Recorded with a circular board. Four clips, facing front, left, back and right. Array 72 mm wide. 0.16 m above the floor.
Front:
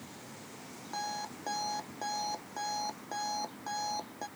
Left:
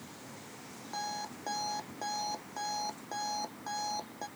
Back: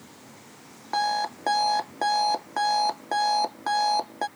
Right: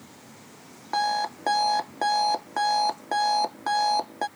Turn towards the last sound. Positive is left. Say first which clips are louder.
# right 14 dB, back 13 dB
turn(degrees=-135)